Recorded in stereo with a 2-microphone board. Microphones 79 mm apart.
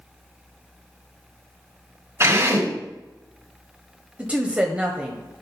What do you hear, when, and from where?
2.2 s a drill: 40° right (ahead or behind), 3.5 m
4.2 s a woman speaking: 15° right (ahead or behind), 1.0 m